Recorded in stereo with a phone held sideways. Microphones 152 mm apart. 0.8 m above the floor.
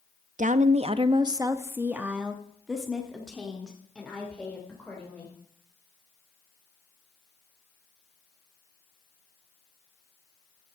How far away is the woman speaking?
About 0.5 m.